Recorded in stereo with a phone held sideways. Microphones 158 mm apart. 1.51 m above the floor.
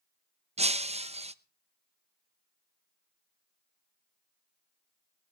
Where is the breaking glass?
40° right (ahead or behind), 0.8 m.